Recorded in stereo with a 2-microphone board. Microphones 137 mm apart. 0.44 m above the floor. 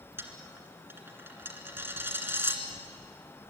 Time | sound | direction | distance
0.2 | a dropped coin | 20° right (ahead or behind) | 2 m